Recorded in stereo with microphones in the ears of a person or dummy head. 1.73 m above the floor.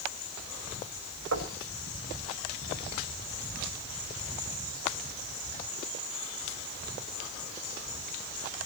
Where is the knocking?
80° right, 6 m.